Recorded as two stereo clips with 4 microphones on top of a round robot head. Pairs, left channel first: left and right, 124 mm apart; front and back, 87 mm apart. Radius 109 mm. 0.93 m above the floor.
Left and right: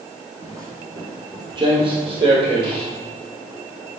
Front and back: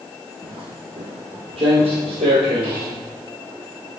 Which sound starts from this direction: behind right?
Footsteps, at 0.4 s.